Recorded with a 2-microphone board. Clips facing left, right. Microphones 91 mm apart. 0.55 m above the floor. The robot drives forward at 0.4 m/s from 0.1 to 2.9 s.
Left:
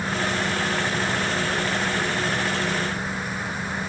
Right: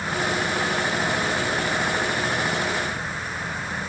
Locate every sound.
Only background noise.